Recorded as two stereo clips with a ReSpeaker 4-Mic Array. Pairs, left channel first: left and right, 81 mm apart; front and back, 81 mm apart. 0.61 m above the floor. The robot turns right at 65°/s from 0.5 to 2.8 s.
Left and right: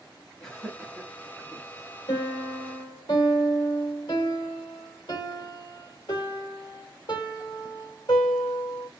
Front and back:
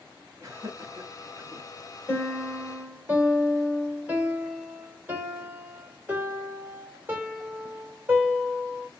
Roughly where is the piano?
Ahead left.